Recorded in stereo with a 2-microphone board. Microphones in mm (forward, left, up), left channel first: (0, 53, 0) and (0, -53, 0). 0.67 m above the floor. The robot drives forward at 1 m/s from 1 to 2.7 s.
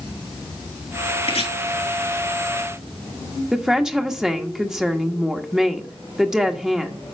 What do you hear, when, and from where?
1.2 s chopping: 80° left, 6.5 m
3.5 s a woman speaking: 5° right (ahead or behind), 1.1 m